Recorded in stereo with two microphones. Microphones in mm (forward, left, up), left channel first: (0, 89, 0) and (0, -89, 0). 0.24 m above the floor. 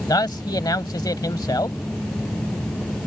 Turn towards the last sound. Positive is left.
turn(degrees=25)  # may be behind; listen again after turning